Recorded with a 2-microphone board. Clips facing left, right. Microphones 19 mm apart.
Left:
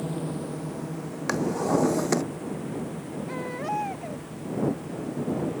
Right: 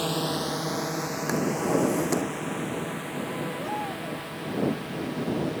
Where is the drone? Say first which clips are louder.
Right 4 dB; 75° right (ahead or behind); by 5.6 s 65° right (ahead or behind).